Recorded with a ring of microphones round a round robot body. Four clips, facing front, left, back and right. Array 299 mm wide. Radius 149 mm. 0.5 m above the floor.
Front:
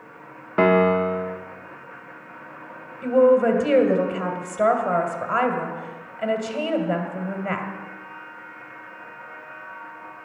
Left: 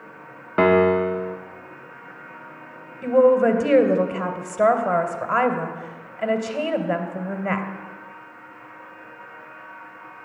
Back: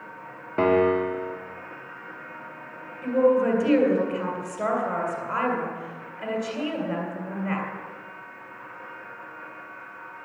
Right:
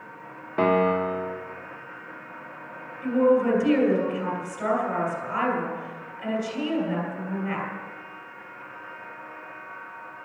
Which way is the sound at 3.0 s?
65° left.